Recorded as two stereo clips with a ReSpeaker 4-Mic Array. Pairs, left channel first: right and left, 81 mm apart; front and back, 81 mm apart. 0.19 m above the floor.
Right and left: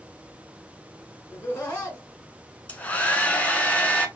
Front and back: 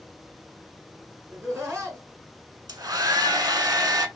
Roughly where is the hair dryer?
Behind.